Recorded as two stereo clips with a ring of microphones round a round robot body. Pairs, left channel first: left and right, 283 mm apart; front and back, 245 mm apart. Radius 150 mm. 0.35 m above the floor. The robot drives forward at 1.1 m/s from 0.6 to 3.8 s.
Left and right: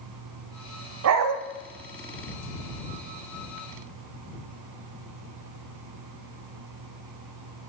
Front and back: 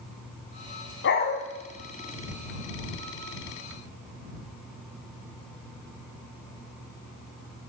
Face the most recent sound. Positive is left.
turn(degrees=-165)